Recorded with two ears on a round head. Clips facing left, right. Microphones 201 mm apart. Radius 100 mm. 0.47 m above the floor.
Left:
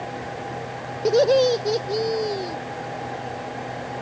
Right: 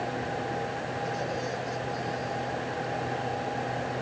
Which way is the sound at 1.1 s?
85° left.